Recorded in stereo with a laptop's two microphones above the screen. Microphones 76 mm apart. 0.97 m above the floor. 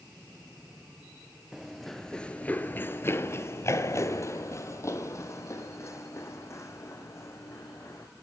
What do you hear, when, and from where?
1.5 s running footsteps: 5° right (ahead or behind), 1.1 m; by 8.1 s 35° left (ahead or behind), 4 m